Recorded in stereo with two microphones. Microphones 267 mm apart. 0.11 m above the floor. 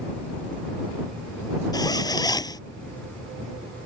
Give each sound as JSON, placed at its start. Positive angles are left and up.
{"t": 1.7, "sound": "a zipper", "side_deg": 15}